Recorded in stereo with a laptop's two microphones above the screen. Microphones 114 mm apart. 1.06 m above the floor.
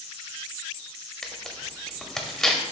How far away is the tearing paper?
About 0.7 m.